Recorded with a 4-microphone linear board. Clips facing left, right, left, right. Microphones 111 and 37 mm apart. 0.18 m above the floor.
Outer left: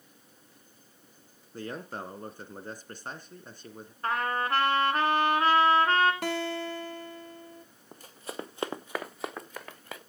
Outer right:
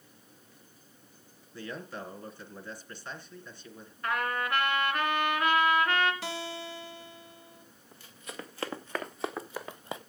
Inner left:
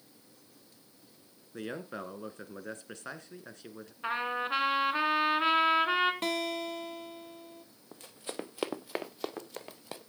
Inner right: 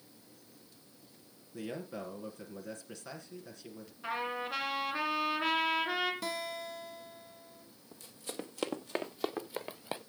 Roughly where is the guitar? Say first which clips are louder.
Outer left 6 dB, inner left 5 dB; left.